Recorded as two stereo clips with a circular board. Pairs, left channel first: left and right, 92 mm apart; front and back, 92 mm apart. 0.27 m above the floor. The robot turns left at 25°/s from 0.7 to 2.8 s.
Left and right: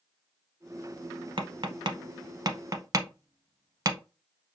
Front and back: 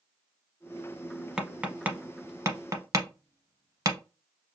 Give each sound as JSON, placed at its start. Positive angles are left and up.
{"t": 1.4, "sound": "tapping", "azimuth_deg": -100, "distance_m": 0.7}